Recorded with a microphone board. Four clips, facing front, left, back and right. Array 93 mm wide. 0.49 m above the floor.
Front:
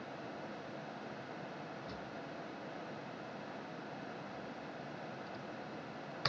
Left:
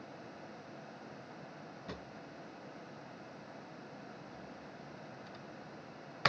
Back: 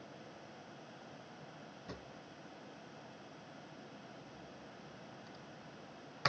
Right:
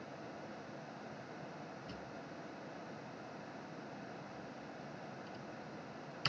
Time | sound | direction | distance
1.9 | a drawer | 100° left | 1.0 m